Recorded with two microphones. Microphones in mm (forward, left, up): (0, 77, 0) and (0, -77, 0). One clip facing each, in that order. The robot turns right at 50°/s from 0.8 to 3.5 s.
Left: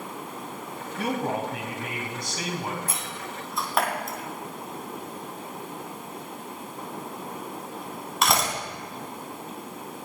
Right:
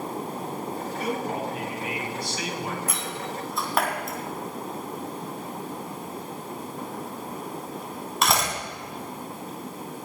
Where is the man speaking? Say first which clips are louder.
Left 3 dB; 70° left, 3.5 m; by 2.8 s 160° left, 3.5 m.